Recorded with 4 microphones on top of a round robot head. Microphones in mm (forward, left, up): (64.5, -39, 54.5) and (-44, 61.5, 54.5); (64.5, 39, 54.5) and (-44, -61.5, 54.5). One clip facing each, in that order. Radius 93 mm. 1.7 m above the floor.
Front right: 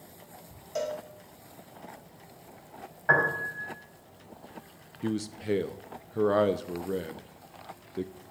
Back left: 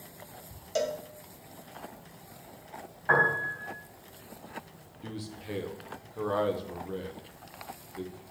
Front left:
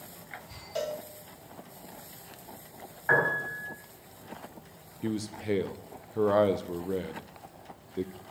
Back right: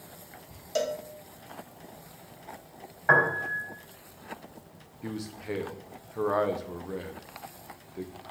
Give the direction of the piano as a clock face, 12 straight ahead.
3 o'clock.